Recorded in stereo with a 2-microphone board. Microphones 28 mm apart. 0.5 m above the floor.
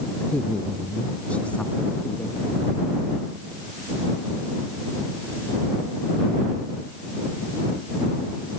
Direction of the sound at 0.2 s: 45° left (ahead or behind).